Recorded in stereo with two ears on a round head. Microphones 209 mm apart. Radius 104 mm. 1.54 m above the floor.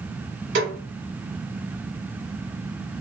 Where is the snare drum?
45° right (ahead or behind), 1.6 m.